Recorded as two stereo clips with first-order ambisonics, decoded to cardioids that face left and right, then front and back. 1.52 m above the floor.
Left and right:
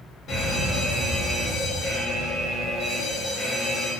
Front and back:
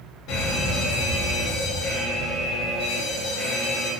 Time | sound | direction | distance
0.3 | an alarm | 50° left | 4.5 m